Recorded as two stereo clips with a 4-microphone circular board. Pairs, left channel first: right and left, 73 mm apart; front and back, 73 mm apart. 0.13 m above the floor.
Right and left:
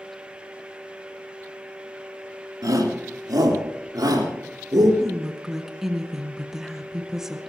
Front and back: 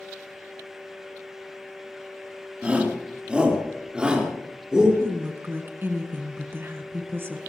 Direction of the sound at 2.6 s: 110° left.